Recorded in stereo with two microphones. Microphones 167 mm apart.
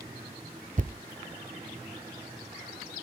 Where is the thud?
50° right (ahead or behind), 0.5 m.